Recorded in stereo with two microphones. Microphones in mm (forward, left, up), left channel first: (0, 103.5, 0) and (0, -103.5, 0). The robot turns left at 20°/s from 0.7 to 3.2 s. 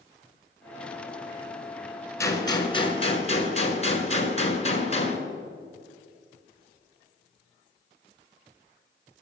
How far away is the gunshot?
About 1.6 m.